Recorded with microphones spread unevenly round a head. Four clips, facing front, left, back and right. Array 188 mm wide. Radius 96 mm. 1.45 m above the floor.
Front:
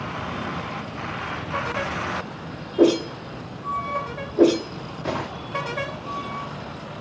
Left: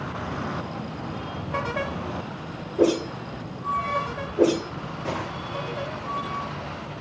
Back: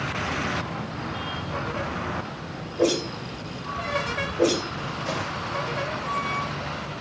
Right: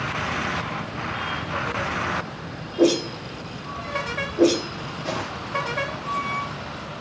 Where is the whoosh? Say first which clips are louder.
Right 2 dB, front 6 dB; straight ahead, 4 m.